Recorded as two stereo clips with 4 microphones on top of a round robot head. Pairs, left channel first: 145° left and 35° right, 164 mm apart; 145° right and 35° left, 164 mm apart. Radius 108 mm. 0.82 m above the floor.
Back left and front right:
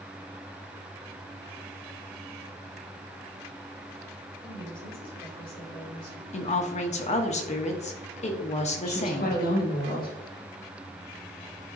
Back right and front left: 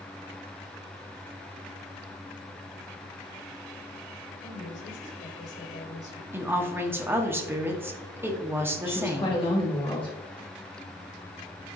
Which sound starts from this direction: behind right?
A woman speaking, at 4.4 s.